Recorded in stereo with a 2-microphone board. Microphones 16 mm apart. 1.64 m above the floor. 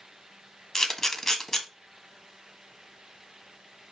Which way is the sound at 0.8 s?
30° left (ahead or behind).